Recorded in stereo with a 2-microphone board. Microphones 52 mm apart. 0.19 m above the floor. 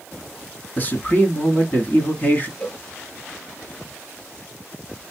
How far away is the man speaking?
About 1.3 m.